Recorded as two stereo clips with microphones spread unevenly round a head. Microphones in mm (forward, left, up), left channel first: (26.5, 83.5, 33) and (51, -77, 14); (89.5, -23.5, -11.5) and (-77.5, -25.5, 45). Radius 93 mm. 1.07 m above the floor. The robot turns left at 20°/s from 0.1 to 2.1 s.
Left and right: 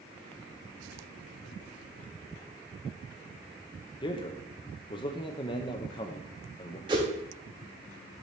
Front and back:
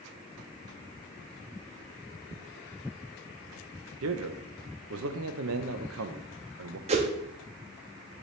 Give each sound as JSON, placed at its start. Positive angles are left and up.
{"t": 4.0, "sound": "a man speaking", "azimuth_deg": 165, "distance_m": 0.6}
{"t": 6.9, "sound": "a whoosh", "azimuth_deg": -150, "distance_m": 0.7}